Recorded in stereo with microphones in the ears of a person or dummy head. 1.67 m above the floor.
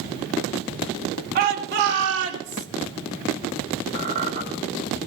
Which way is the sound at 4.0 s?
40° right (ahead or behind).